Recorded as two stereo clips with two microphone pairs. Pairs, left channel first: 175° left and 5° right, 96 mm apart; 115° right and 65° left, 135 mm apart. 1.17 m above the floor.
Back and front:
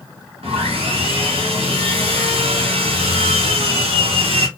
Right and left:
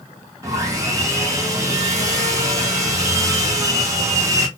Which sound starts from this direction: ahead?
Sawing, at 0.4 s.